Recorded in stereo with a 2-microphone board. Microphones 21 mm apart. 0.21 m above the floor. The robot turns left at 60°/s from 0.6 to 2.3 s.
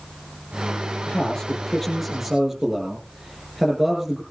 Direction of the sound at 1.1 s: 60° left.